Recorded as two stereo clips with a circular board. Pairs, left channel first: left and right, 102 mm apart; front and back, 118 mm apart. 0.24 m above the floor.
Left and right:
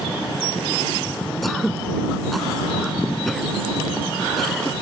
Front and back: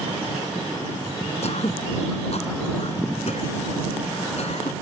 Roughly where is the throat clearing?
Ahead.